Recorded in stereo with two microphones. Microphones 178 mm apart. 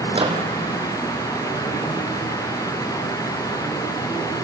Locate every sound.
0.1 s a microwave: 30° right (ahead or behind), 3.5 m